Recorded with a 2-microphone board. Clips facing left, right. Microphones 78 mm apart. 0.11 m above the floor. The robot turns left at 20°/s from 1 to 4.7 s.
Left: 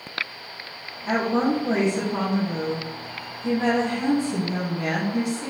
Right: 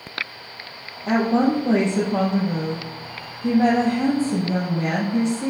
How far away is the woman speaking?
About 3.5 m.